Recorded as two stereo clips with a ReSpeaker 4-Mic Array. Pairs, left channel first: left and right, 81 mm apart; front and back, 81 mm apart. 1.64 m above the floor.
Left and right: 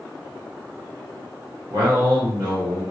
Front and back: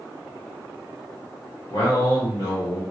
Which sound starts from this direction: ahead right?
A man speaking, at 1.7 s.